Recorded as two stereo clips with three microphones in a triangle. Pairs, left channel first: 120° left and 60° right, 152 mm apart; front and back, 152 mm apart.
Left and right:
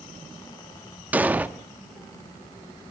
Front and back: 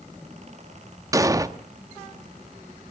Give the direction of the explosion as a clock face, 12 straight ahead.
4 o'clock.